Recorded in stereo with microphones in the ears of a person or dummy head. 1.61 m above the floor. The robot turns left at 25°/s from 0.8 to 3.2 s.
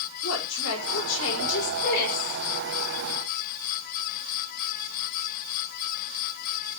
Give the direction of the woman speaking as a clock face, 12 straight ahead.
9 o'clock.